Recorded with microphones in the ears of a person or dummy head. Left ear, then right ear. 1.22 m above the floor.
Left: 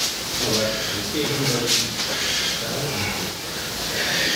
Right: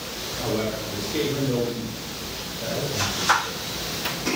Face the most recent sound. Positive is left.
turn(degrees=5)  # may be behind; listen again after turning